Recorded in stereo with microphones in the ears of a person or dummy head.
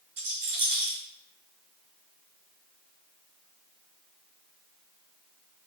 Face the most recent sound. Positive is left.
turn(degrees=-35)  # may be behind; listen again after turning